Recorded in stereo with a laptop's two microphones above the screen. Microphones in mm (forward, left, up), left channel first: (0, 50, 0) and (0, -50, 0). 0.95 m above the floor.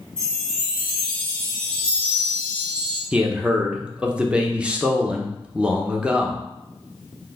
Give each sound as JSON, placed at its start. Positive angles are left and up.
{"t": 0.2, "sound": "a chime", "side_deg": 10, "distance_m": 1.8}
{"t": 3.1, "sound": "a man speaking", "side_deg": -10, "distance_m": 0.7}